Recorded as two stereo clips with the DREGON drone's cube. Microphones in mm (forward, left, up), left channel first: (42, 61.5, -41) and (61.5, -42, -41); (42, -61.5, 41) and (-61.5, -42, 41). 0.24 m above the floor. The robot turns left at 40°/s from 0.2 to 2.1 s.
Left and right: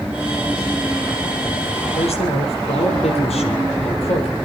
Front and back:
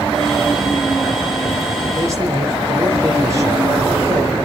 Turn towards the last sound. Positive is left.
turn(degrees=110)